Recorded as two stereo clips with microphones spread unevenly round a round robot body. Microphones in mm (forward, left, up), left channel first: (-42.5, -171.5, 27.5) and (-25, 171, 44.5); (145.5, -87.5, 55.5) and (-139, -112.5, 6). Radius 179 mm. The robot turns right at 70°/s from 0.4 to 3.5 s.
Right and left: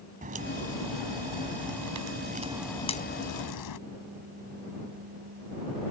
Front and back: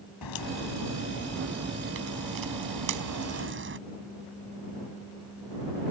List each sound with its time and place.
0.2 s a crack: 20° left; by 3.8 s 125° right